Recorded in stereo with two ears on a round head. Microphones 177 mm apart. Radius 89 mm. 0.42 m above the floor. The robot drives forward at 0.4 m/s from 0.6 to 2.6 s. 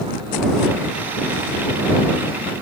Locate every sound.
Only background noise.